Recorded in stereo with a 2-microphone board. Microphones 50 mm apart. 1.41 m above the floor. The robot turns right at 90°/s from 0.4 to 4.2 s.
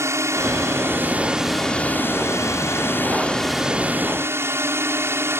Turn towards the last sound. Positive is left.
turn(degrees=-115)